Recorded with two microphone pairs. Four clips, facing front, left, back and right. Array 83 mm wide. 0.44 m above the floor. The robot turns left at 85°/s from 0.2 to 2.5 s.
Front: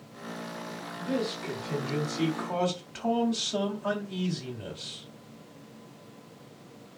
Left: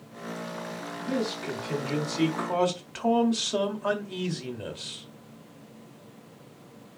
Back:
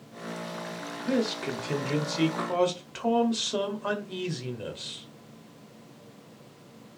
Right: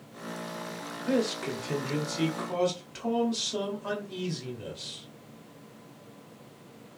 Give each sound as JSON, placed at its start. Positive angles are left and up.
{"t": 1.0, "sound": "a man speaking", "azimuth_deg": -105, "distance_m": 1.9}